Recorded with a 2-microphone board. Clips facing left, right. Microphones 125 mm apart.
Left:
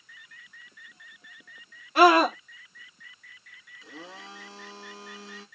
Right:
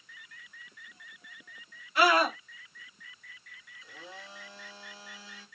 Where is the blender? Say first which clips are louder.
Left 4 dB; 75° left (ahead or behind), 1.8 m.